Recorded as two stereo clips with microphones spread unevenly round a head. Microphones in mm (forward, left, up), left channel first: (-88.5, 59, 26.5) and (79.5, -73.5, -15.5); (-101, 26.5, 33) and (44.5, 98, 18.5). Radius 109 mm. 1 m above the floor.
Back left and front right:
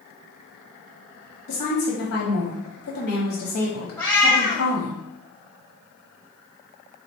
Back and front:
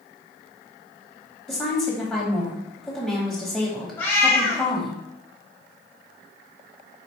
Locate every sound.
1.5 s a woman speaking: 115° left, 1.1 m
4.0 s a cat meowing: 170° left, 0.8 m